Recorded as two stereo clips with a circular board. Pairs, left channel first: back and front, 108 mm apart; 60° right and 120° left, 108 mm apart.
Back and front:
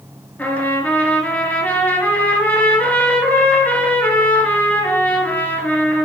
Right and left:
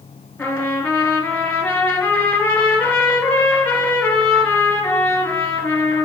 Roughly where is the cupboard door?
I don't hear a cupboard door.